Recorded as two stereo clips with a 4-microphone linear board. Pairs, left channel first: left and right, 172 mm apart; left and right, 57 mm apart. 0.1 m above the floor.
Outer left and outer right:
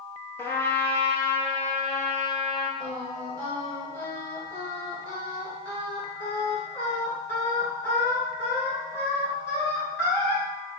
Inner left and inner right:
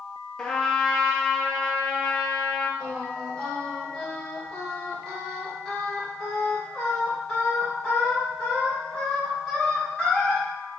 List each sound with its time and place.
0.4 s a trumpet: 15° left (ahead or behind), 0.7 m
2.8 s singing: 10° left (ahead or behind), 1.6 m